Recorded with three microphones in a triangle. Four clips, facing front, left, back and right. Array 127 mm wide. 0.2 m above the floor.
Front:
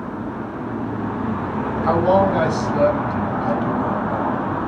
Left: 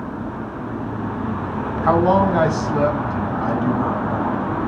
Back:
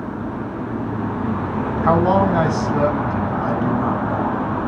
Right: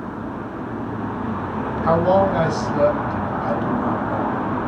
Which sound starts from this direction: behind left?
A man speaking, at 1.8 s.